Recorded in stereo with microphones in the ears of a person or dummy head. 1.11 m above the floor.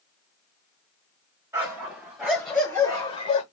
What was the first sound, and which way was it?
A dog barking, 15° right (ahead or behind).